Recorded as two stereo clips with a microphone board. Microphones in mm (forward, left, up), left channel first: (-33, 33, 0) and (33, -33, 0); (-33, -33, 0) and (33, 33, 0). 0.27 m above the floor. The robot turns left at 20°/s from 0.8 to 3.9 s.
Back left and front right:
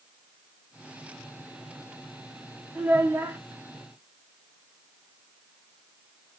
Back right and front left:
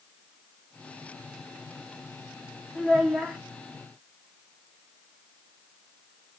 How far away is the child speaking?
About 0.7 m.